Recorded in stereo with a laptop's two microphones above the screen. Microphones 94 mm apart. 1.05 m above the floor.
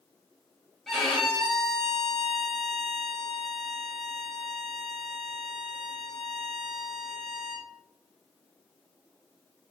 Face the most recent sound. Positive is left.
turn(degrees=0)  # may be behind; listen again after turning